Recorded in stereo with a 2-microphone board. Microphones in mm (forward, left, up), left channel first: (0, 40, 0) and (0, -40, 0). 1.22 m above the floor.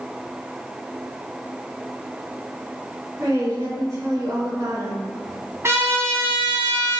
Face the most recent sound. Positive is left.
turn(degrees=-35)  # may be behind; listen again after turning